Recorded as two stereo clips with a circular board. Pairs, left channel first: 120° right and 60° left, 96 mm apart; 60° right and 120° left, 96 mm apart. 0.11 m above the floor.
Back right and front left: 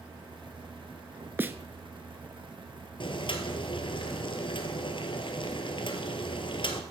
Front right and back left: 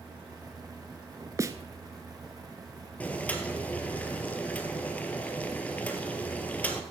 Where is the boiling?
135° right, 1.4 m.